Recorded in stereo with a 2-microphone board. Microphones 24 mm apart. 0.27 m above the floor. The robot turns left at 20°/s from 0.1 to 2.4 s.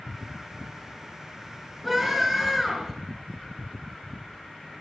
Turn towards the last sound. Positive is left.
turn(degrees=-10)  # may be behind; listen again after turning